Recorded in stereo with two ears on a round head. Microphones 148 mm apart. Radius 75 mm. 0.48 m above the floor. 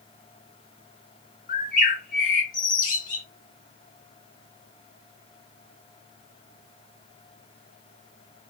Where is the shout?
I don't hear a shout.